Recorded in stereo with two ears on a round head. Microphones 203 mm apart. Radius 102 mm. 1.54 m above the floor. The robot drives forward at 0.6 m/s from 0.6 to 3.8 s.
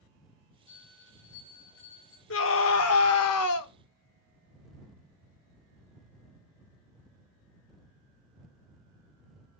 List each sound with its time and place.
0.7 s a bell: 85° left, 7 m; by 2.2 s 75° left (ahead or behind), 7 m
2.3 s a scream: 60° left (ahead or behind), 1.6 m; by 3.7 s 75° left (ahead or behind), 1.4 m